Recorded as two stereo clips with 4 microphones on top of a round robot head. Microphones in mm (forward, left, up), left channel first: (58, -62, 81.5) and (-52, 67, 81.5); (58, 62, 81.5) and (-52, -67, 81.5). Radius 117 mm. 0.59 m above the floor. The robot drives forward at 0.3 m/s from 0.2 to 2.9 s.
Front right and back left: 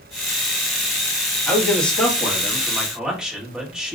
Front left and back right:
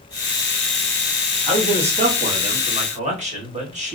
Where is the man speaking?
120° right, 1.1 m; by 4.0 s 145° right, 1.3 m.